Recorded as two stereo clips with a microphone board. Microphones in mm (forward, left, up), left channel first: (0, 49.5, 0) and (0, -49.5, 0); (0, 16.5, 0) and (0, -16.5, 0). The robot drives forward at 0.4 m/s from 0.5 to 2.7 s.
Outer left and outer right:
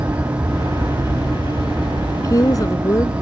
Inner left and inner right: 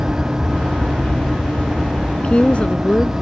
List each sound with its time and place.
0.0 s an aircraft: 35° right (ahead or behind)
2.1 s a woman speaking: 40° left (ahead or behind); by 3.1 s 35° left (ahead or behind)